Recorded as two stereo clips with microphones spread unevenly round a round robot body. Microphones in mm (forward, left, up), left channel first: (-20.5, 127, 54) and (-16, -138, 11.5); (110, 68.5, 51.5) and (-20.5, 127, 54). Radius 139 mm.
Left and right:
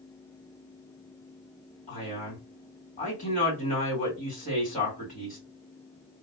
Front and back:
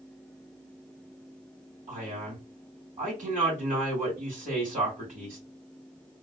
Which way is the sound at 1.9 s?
155° left.